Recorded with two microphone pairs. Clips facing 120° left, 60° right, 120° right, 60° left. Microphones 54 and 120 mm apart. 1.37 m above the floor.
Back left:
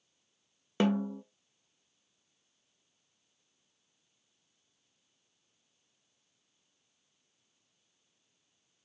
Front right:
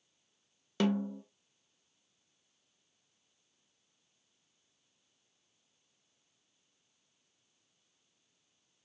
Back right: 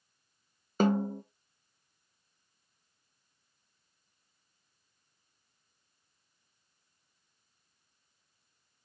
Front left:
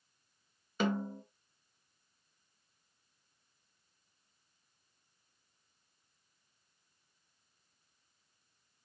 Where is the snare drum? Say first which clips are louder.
Back left 2 dB, back right 6 dB; 175° right, 0.7 m.